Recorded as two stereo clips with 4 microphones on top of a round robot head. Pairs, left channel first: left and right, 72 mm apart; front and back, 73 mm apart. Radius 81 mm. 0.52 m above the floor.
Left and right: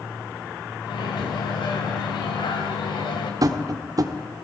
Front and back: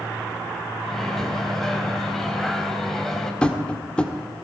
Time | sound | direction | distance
0.8 | a microwave | 85° left | 3.5 m
3.4 | tapping | 75° right | 1.4 m